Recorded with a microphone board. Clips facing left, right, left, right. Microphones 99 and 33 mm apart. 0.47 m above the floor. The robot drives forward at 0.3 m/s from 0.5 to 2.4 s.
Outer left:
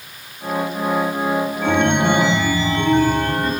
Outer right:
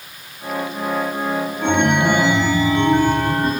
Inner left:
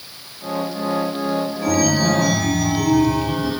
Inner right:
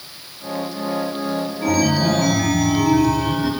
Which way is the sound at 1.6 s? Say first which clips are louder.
Outer right 1 dB, inner right 1 dB; 20° right (ahead or behind).